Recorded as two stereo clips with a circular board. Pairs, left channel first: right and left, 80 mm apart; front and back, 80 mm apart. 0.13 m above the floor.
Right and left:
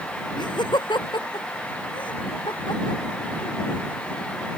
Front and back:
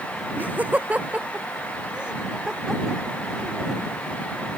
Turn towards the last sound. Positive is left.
turn(degrees=-90)